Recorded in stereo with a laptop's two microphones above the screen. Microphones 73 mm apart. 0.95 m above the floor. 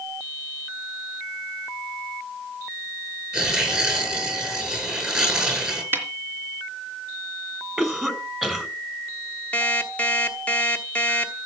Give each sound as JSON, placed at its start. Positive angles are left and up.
{"t": 3.3, "sound": "tearing paper", "side_deg": -15, "distance_m": 9.5}
{"t": 5.9, "sound": "a snare drum", "side_deg": -30, "distance_m": 3.0}
{"t": 7.8, "sound": "a cough", "side_deg": -10, "distance_m": 5.0}
{"t": 9.5, "sound": "an alarm clock", "side_deg": 15, "distance_m": 1.1}